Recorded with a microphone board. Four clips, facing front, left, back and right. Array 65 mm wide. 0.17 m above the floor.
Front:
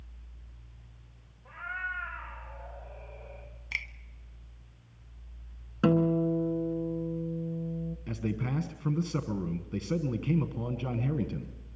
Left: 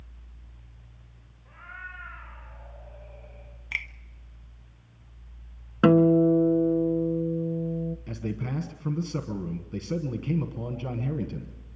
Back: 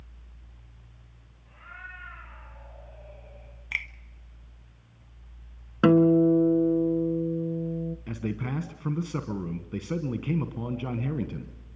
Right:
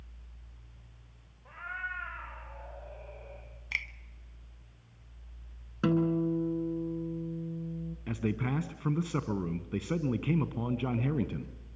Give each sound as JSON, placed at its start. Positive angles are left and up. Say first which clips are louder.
{"t": 1.4, "sound": "a cat meowing", "louder": "right 4 dB, front 8 dB", "azimuth_deg": -50, "distance_m": 9.5}
{"t": 3.7, "sound": "a finger snap", "louder": "left 3 dB, back 4 dB", "azimuth_deg": 150, "distance_m": 0.8}
{"t": 5.8, "sound": "a guitar", "louder": "left 10 dB, back 7 dB", "azimuth_deg": 130, "distance_m": 0.8}
{"t": 8.1, "sound": "a man speaking", "louder": "right 1 dB, front 3 dB", "azimuth_deg": -115, "distance_m": 1.1}